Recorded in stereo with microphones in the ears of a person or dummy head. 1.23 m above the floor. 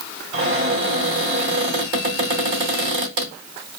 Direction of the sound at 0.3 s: 45° right (ahead or behind).